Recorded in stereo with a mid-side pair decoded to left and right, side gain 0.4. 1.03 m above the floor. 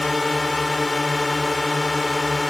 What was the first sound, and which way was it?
A drone, 20° left.